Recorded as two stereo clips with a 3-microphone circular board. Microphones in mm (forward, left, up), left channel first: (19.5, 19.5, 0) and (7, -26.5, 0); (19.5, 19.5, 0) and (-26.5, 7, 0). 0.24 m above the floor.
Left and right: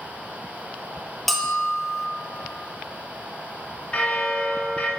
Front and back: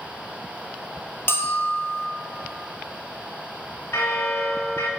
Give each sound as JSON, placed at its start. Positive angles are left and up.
{"t": 1.3, "sound": "a bell", "azimuth_deg": -15, "distance_m": 1.0}
{"t": 3.9, "sound": "a bell", "azimuth_deg": 15, "distance_m": 1.2}